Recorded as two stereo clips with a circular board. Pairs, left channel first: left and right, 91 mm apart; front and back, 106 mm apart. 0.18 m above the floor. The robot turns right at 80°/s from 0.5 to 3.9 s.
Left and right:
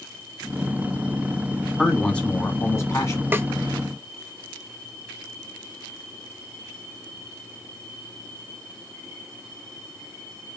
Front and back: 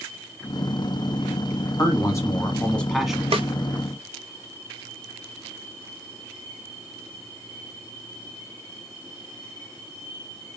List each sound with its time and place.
1.8 s a man speaking: 10° right, 1.6 m; by 3.2 s 105° left, 1.6 m
3.3 s a snare drum: 155° right, 0.5 m; by 3.5 s 145° right, 0.5 m